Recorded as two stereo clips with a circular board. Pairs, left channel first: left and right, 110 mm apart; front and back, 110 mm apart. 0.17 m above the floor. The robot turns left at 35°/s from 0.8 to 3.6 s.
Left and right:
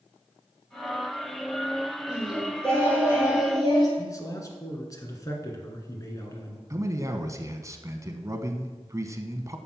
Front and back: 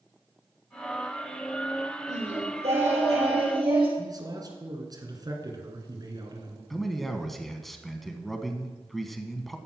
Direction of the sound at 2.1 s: 170° right.